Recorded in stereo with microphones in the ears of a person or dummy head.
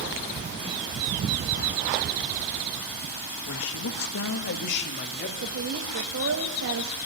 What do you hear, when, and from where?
3.5 s a man speaking: 60° left (ahead or behind), 1.5 m; by 5.3 s 50° left (ahead or behind), 2.5 m
5.4 s a woman speaking: 85° right, 1.6 m